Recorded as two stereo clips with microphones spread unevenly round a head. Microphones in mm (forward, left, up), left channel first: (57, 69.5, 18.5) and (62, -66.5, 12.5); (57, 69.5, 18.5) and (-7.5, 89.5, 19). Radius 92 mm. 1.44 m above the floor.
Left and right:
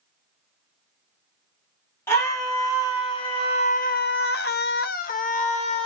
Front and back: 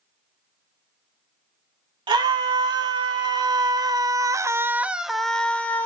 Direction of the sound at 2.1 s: 170° left.